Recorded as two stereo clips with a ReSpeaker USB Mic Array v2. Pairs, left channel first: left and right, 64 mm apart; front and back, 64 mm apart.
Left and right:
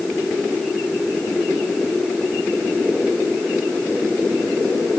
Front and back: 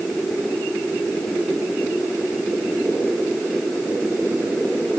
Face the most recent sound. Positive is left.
No sound to turn to.